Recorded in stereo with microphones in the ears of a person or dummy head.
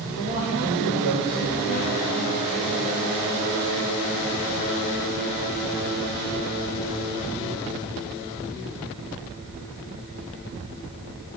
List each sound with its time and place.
0.2 s a man speaking: 40° left (ahead or behind), 2 m